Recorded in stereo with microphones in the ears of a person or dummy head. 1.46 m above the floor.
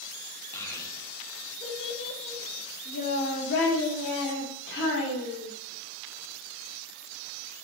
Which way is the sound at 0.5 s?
10° left (ahead or behind).